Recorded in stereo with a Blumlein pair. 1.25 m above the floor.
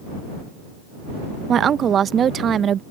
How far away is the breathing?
I don't hear breathing.